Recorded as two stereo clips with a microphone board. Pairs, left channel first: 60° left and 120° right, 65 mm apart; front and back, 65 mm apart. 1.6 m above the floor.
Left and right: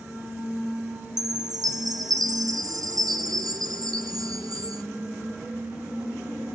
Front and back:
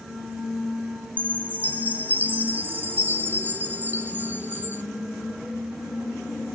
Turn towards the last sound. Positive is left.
turn(degrees=-120)